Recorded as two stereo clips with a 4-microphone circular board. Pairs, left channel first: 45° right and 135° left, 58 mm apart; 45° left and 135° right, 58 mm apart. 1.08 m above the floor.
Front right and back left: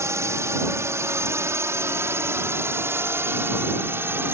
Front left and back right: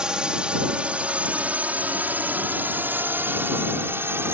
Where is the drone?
150° left; by 4.3 s straight behind.